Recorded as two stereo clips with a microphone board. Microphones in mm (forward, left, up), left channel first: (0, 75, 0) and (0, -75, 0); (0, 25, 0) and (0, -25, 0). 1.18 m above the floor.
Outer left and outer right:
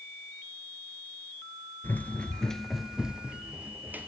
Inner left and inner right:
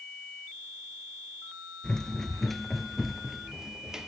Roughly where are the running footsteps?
Centre.